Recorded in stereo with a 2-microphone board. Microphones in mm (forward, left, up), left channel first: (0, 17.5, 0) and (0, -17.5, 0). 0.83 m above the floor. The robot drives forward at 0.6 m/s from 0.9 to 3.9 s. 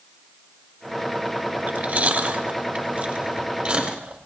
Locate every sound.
1.6 s chewing: 45° right (ahead or behind), 1.6 m; by 4.2 s 25° right (ahead or behind), 2.5 m